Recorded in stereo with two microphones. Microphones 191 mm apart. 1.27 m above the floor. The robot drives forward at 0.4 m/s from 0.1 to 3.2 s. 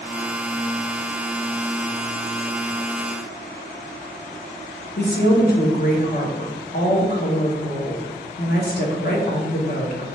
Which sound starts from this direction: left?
A woman speaking, at 5.0 s.